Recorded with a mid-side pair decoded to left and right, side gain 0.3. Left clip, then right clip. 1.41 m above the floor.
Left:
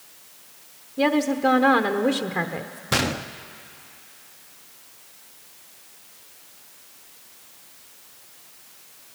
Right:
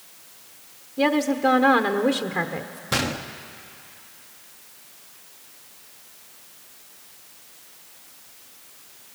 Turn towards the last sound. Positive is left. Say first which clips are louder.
# left 2 dB
turn(degrees=30)